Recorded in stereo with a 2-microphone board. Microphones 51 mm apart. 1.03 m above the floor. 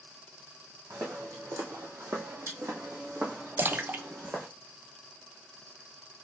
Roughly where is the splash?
Right.